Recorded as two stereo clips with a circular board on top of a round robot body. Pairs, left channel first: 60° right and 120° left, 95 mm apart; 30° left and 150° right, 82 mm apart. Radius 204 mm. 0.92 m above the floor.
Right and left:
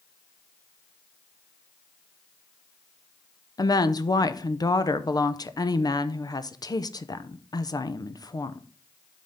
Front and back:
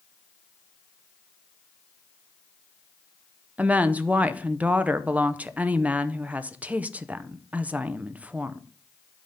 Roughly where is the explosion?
No explosion in this recording.